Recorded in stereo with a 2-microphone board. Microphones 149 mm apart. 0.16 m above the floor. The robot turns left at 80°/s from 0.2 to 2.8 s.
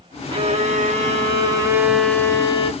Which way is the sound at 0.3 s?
45° right.